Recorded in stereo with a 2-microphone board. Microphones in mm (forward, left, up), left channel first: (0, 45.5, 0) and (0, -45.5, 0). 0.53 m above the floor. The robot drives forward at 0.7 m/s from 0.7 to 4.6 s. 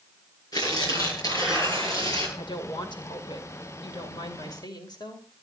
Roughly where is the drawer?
No drawer in this recording.